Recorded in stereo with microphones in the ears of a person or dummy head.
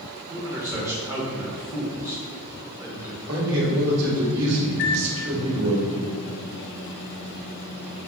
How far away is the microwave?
About 0.9 m.